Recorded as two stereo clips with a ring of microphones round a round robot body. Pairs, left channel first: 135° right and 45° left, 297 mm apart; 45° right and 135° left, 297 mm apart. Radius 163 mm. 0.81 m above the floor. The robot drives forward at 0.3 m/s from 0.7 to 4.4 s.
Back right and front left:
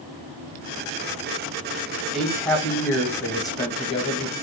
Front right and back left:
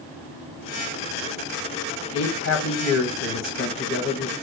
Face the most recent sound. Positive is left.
turn(degrees=-80)